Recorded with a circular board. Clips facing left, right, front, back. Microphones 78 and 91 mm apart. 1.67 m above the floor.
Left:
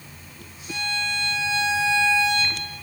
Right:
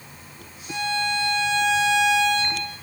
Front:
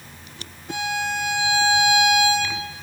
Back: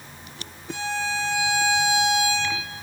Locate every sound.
0.7 s a violin: 25° right, 2.5 m